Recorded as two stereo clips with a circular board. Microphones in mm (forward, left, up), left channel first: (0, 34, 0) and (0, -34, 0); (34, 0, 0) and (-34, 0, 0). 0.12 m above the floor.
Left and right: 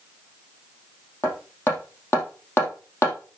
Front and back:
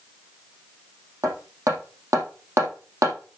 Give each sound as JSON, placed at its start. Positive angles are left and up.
{"t": 1.2, "sound": "hammering", "azimuth_deg": 140, "distance_m": 4.0}